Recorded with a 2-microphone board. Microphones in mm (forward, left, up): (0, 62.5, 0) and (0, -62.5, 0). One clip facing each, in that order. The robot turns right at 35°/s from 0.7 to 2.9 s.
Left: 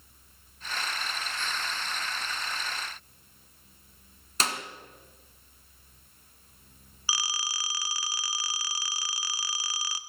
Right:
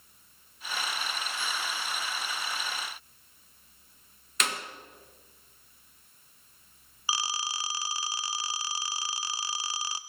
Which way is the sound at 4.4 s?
35° left (ahead or behind).